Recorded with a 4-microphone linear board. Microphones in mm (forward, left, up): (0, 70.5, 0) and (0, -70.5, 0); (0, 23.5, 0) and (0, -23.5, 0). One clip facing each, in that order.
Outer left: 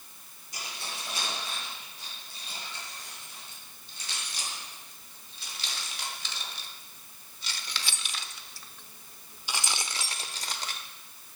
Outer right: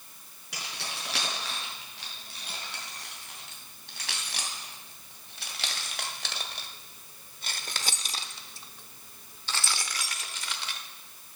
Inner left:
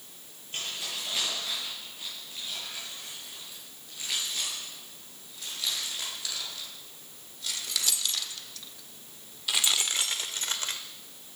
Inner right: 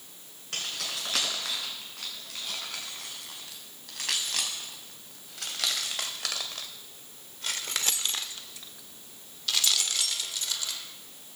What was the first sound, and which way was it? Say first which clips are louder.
Keys jangling: outer right 1 dB, inner right 1 dB; 85° right.